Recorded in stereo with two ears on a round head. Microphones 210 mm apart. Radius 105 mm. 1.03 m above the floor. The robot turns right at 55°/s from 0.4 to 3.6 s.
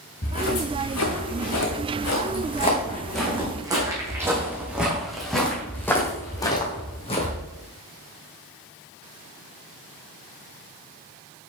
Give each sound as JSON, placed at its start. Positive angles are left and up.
{"t": 0.2, "sound": "footsteps", "side_deg": 45, "distance_m": 4.0}